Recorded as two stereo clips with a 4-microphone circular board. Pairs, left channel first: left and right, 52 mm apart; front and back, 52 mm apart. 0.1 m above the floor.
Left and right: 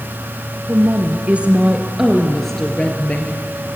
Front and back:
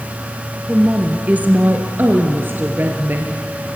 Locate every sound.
0.7 s a woman speaking: 120° right, 2 m; by 3.5 s 140° left, 2 m